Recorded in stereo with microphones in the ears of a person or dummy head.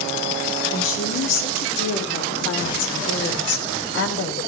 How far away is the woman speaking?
About 4 m.